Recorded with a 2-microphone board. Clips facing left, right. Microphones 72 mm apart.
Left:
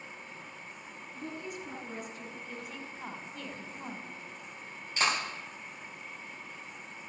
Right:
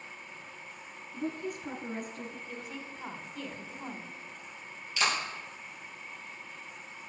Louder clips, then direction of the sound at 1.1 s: Right 5 dB; 50° right (ahead or behind).